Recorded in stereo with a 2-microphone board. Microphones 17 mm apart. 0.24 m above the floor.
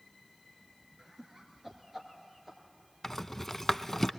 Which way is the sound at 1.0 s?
35° right (ahead or behind).